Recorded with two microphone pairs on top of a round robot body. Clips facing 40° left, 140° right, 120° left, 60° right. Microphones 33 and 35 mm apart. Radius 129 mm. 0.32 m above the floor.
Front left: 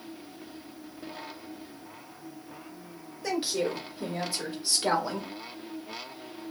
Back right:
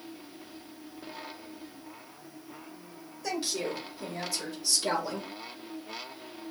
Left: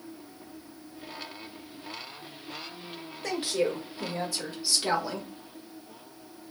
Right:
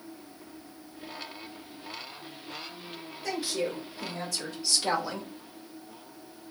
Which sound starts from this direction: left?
A woman speaking, at 3.2 s.